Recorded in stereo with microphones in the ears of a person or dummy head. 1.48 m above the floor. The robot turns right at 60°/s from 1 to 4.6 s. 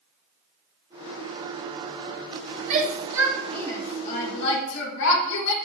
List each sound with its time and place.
2.7 s a shout: 35° right (ahead or behind), 2 m; by 5.5 s 75° left (ahead or behind), 2 m